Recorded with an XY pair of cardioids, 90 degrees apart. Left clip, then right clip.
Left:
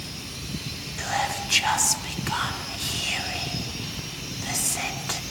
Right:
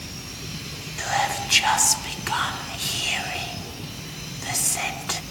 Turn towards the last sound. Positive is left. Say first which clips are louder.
# right 3 dB
turn(degrees=-20)